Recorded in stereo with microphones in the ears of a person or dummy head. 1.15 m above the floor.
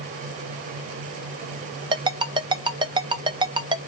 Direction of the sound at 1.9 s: 25° right (ahead or behind).